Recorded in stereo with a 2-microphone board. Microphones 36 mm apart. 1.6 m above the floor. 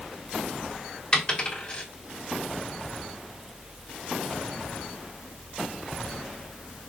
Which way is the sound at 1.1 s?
30° left (ahead or behind).